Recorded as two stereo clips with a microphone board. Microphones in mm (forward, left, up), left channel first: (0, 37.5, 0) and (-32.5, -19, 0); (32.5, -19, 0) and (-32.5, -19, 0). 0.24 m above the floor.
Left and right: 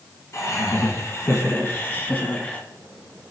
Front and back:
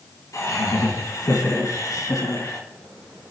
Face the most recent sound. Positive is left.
turn(degrees=-5)